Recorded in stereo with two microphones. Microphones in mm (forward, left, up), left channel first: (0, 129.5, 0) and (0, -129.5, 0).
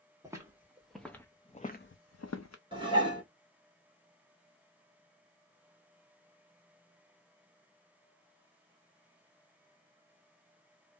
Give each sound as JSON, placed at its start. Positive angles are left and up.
{"t": 0.2, "sound": "footsteps", "side_deg": -10, "distance_m": 1.1}
{"t": 2.7, "sound": "dishes clattering", "side_deg": -20, "distance_m": 1.2}